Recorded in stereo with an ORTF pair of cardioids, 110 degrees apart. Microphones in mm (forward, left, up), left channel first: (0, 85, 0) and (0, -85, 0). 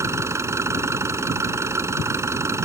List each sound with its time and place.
0.0 s an engine running: 15° right